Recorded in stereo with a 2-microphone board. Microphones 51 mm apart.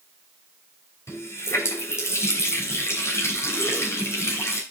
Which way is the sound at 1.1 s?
60° left (ahead or behind).